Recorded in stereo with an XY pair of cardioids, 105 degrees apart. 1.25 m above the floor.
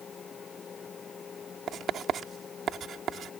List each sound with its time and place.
0.0 s a fan: 45° left
1.7 s writing: 55° right